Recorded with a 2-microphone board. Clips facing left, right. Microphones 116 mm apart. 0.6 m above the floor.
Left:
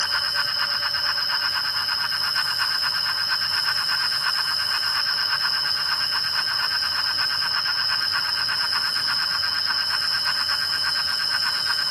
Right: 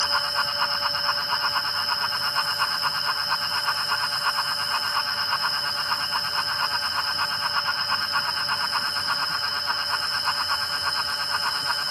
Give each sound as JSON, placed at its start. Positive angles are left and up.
{"t": 0.0, "sound": "an insect", "side_deg": 20, "distance_m": 2.5}